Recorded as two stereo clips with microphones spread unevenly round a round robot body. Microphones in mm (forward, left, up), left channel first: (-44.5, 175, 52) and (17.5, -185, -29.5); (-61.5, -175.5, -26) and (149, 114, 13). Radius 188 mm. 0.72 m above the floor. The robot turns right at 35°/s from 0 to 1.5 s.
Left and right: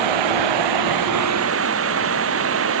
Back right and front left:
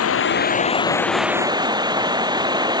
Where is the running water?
75° right; by 2.8 s 25° right.